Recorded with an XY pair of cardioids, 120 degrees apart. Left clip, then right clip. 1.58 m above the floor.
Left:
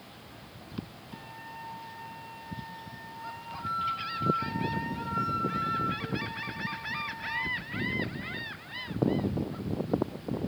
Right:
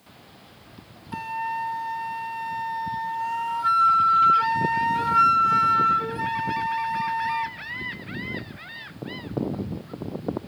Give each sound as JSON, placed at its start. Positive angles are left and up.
{"t": 1.1, "sound": "a flute", "azimuth_deg": -70, "distance_m": 0.7}